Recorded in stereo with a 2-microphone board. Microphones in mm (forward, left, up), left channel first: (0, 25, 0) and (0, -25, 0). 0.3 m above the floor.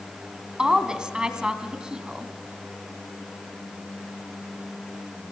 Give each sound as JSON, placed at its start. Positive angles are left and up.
{"t": 0.6, "sound": "a woman speaking", "side_deg": -15, "distance_m": 2.5}